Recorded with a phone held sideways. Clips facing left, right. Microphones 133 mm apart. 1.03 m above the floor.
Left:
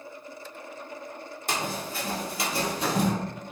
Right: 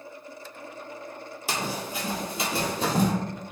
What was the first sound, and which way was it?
Running footsteps, 5° right (ahead or behind).